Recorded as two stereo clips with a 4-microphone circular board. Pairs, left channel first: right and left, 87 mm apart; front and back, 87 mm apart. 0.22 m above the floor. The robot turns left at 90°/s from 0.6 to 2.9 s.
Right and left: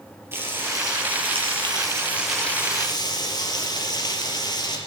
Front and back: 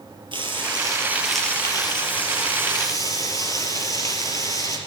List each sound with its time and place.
0.3 s frying: 155° left, 4 m; by 4.8 s 50° right, 4 m